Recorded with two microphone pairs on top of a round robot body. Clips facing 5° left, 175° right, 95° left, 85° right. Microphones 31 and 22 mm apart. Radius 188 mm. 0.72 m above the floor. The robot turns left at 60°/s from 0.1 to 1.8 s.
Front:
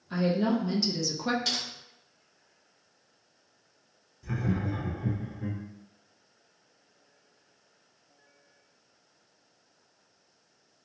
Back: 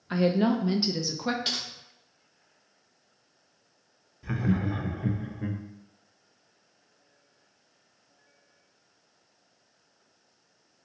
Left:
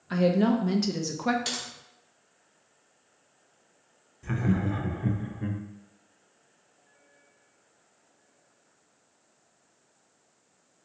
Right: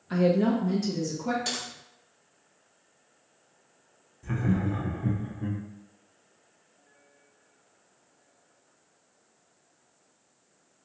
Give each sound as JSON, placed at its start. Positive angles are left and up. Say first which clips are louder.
{"t": 0.1, "sound": "a woman speaking", "louder": "back 3 dB, even", "azimuth_deg": 175, "distance_m": 0.5}
{"t": 1.4, "sound": "typing on a keyboard", "louder": "even, right 1 dB", "azimuth_deg": 150, "distance_m": 1.2}
{"t": 4.2, "sound": "laughter", "louder": "back 3 dB, even", "azimuth_deg": 150, "distance_m": 0.6}